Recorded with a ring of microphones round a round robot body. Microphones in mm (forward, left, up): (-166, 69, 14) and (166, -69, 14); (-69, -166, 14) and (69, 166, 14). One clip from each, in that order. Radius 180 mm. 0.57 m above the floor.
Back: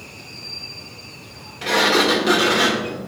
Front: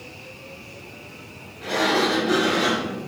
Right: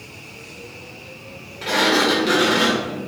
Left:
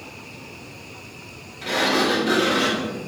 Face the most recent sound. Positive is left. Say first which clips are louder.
# back 5 dB, right 3 dB
turn(degrees=165)